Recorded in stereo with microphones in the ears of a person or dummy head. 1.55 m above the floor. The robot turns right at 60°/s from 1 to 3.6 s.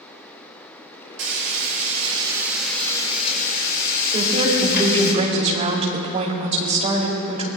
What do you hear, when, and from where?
1.2 s frying: 90° right, 4 m; by 5.1 s 55° left, 4 m
4.1 s a woman speaking: 35° right (ahead or behind), 3 m